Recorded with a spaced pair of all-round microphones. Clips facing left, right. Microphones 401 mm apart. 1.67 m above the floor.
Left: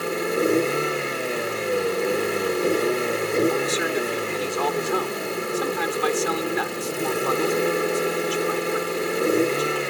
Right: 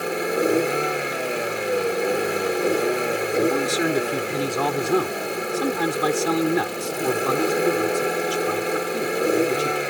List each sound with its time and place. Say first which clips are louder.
0.0 s a vehicle: even; 5° left (ahead or behind)
3.5 s a man speaking: right 2 dB; 55° right (ahead or behind)